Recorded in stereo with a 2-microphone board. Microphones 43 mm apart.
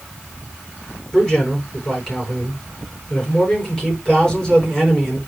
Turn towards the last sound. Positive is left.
turn(degrees=10)  # may be behind; listen again after turning